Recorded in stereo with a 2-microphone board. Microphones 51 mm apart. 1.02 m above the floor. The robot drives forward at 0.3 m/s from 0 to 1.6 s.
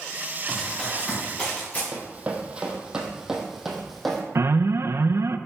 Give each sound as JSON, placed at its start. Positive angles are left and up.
{"t": 0.5, "sound": "running footsteps", "side_deg": 15, "distance_m": 5.5}
{"t": 1.9, "sound": "running footsteps", "side_deg": -30, "distance_m": 2.5}
{"t": 4.3, "sound": "an alarm", "side_deg": -60, "distance_m": 0.7}